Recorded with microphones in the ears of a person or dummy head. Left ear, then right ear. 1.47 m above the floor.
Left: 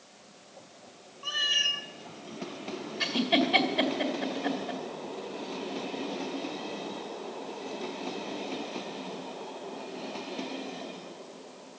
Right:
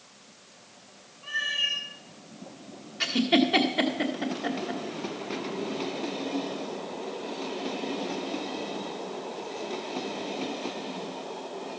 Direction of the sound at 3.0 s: 10° right (ahead or behind).